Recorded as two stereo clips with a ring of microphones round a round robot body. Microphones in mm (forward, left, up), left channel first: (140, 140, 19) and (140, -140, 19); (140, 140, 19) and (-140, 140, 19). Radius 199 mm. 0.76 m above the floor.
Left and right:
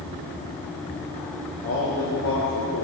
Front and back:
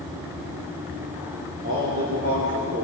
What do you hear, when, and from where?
1.6 s a man speaking: 135° left, 2.5 m; by 2.9 s 125° left, 3 m